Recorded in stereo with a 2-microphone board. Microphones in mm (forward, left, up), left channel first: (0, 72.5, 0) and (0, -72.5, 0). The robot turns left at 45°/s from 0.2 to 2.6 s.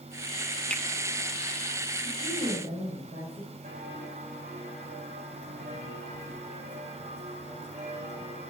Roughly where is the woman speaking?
Right.